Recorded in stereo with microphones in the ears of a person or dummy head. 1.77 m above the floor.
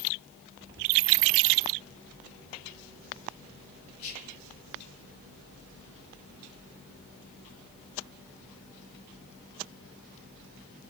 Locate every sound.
4.0 s whispering: 45° left (ahead or behind), 1.7 m